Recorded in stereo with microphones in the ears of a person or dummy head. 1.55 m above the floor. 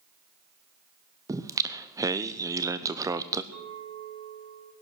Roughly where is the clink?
Right.